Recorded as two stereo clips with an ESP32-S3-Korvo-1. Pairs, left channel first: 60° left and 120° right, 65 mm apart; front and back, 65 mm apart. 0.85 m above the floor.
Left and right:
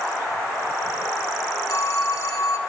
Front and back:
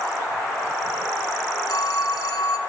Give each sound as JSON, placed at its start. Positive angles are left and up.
{"t": 1.7, "sound": "a phone ringing", "azimuth_deg": 25, "distance_m": 1.8}